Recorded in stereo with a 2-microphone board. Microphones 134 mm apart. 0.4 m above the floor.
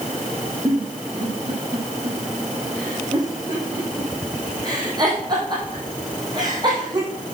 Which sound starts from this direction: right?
A giggle, at 0.7 s.